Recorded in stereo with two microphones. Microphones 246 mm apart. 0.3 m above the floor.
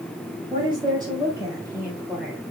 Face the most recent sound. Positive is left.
turn(degrees=-5)  # may be behind; listen again after turning